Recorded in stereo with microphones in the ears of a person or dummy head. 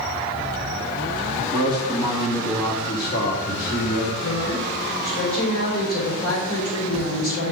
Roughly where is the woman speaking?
Left.